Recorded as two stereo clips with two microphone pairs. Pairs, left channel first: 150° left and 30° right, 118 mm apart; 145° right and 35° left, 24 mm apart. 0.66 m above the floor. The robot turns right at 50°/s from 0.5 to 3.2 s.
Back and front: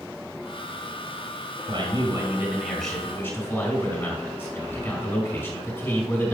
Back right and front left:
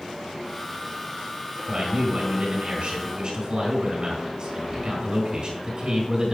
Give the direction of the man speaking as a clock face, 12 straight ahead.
12 o'clock.